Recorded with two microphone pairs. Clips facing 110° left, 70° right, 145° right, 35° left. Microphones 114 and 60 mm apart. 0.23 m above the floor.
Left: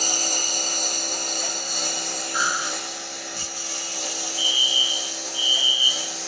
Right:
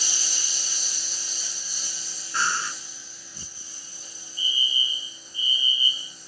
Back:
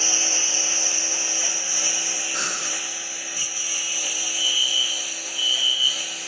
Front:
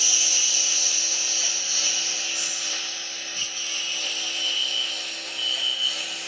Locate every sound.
0.0 s a lawn mower: 145° left; by 6.3 s 125° left
2.3 s breathing: 175° right
4.4 s a fire alarm: 20° right